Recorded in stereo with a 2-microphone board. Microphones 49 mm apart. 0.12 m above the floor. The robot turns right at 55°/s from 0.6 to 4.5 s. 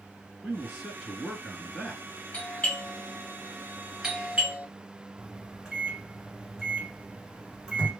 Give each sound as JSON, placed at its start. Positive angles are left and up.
{"t": 0.4, "sound": "a man speaking", "side_deg": -10, "distance_m": 1.5}
{"t": 2.3, "sound": "a doorbell", "side_deg": 25, "distance_m": 1.8}
{"t": 5.2, "sound": "a microwave", "side_deg": -10, "distance_m": 1.2}